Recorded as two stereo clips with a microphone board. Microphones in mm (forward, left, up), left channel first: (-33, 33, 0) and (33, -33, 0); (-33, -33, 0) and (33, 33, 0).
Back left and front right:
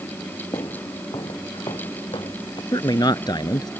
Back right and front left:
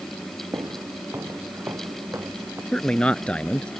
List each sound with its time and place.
0.5 s footsteps: 100° left; by 2.6 s 110° left
2.7 s a man speaking: 150° left